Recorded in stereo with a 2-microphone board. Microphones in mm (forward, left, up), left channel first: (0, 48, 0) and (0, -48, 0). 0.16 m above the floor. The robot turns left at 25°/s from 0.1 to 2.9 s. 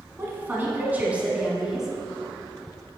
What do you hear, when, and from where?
0.2 s a woman speaking: 130° right, 1.4 m; by 1.9 s 170° right, 1.4 m